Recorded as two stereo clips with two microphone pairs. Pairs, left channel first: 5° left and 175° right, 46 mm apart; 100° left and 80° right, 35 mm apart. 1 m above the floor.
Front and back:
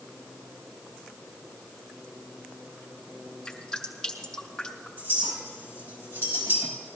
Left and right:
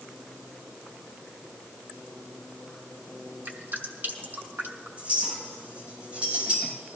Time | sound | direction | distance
3.5 | dripping | 70° right | 2 m
5.0 | a clink | 135° right | 4 m